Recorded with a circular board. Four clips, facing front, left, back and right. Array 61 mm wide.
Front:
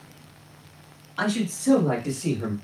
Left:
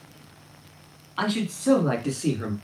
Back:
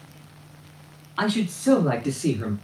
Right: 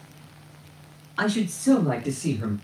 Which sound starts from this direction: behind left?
A man speaking, at 1.2 s.